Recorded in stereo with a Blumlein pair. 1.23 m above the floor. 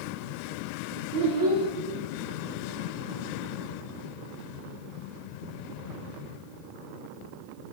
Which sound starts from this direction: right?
A child speaking, at 1.1 s.